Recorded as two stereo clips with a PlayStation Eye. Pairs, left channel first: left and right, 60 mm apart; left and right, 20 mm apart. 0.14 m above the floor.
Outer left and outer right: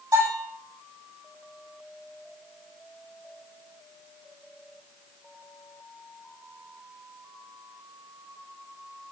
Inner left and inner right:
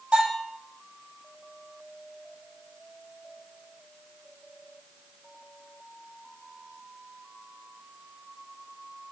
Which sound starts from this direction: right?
A bell, at 0.1 s.